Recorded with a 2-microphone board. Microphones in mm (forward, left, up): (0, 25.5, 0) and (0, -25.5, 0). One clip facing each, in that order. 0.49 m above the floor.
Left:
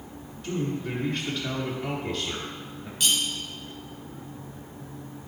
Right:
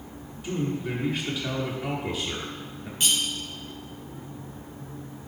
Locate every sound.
0.4 s a man speaking: 10° right (ahead or behind), 1.2 m
3.0 s cutlery clinking: 30° right (ahead or behind), 2 m